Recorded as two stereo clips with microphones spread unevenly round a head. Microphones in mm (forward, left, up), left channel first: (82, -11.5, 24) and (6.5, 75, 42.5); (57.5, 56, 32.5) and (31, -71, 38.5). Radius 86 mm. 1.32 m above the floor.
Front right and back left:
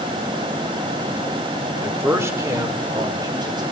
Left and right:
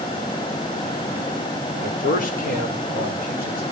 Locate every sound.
1.8 s a man speaking: 55° left, 3 m; by 3.6 s 80° left, 5 m